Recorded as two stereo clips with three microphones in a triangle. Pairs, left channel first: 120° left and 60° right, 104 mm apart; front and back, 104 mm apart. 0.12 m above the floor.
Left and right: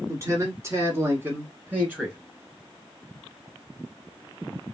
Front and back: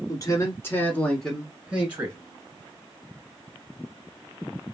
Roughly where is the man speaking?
Ahead.